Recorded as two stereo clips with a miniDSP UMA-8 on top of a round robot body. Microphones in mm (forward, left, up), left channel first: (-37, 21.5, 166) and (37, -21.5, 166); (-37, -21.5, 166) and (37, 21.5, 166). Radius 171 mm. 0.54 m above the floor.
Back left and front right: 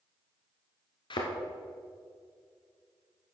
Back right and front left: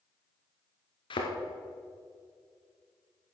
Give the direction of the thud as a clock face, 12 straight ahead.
6 o'clock.